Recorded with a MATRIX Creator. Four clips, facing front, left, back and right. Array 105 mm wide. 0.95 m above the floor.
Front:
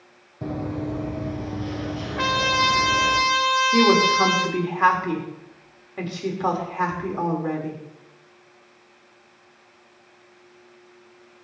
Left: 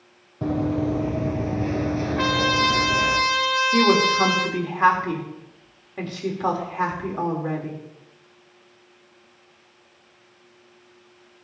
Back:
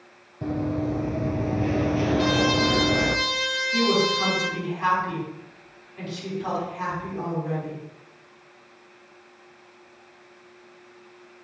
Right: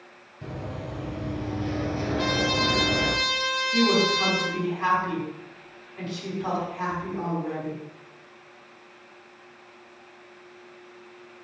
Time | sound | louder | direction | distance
0.4 | running footsteps | left 13 dB, back 2 dB | 85° left | 1.9 m
2.2 | a trumpet | left 4 dB, front 3 dB | 45° left | 2.5 m
3.7 | a woman speaking | left 3 dB, front 3 dB | 45° left | 3 m